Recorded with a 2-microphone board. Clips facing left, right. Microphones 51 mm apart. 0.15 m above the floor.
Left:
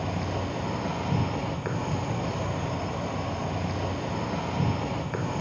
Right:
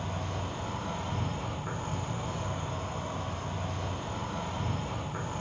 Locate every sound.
0.0 s an insect: 70° left (ahead or behind), 0.7 m